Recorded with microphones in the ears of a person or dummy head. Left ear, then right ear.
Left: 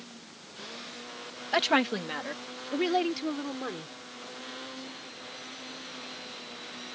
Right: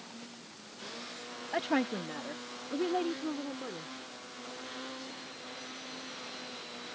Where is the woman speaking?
40° left (ahead or behind); by 3.9 s 55° left (ahead or behind).